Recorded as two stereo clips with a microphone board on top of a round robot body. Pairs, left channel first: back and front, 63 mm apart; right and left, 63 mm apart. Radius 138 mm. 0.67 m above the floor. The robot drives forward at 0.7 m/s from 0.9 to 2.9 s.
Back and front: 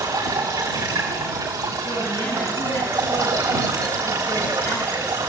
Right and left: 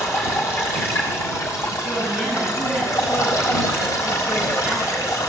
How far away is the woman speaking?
About 9 m.